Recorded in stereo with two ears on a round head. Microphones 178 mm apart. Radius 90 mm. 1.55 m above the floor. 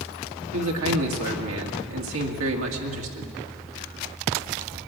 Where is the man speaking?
75° right (ahead or behind), 1.9 m.